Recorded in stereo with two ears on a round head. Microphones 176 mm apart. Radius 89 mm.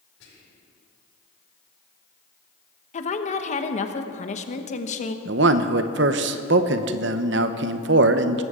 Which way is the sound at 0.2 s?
85° left.